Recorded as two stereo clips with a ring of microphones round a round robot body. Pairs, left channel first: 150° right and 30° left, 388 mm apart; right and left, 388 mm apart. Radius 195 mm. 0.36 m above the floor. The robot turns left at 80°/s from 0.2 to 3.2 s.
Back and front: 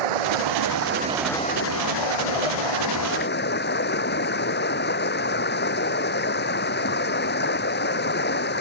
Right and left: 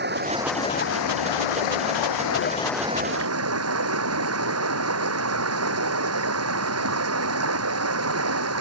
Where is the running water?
25° left; by 8.6 s 145° left.